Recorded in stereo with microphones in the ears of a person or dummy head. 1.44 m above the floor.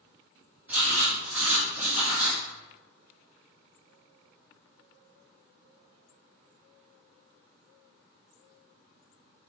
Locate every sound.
0.7 s writing: 5° right (ahead or behind), 1.2 m